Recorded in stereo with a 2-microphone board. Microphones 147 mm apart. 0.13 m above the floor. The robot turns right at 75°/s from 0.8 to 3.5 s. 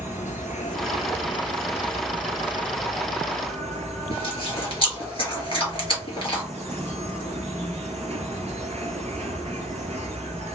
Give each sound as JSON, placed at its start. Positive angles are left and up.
{"t": 0.0, "sound": "an insect", "azimuth_deg": 90, "distance_m": 1.1}
{"t": 4.1, "sound": "chewing", "side_deg": 40, "distance_m": 2.0}